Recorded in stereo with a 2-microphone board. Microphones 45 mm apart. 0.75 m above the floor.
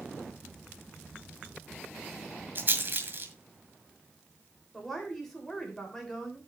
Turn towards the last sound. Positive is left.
turn(degrees=5)  # may be behind; listen again after turning